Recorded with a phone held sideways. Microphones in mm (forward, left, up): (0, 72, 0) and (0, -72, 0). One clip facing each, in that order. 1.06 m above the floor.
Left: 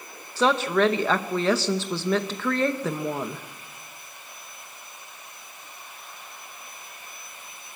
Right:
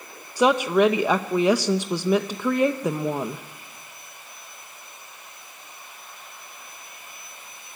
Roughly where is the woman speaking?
Centre.